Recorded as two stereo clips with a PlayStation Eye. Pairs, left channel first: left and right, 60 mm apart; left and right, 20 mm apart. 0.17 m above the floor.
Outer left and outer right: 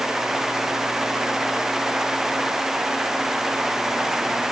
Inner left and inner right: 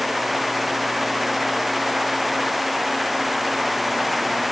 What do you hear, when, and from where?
Only background noise.